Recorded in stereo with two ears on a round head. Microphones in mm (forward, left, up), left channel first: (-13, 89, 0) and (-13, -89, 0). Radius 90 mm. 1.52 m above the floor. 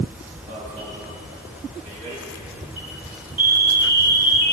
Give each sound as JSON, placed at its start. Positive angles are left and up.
{"t": 0.5, "sound": "an alarm", "side_deg": -40, "distance_m": 2.0}